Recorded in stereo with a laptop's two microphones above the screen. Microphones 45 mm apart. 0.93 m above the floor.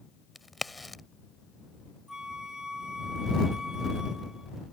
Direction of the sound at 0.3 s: Centre (ahead or behind).